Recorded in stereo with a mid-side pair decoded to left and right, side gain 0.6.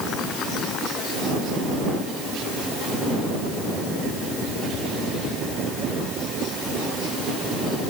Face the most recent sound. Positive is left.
No sound to turn to.